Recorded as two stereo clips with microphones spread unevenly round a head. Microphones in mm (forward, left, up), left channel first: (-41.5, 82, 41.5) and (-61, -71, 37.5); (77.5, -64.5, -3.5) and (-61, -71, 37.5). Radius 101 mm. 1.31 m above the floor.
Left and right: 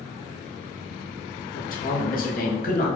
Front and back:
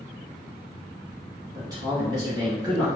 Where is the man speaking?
105° left, 1.5 m.